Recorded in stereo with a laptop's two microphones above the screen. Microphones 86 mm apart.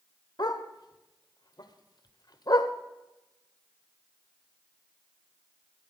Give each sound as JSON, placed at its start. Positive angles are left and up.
{"t": 0.4, "sound": "a dog barking", "side_deg": 50, "distance_m": 0.9}